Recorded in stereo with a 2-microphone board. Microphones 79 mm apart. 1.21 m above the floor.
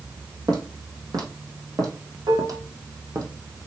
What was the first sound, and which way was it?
Footsteps, 60° right (ahead or behind).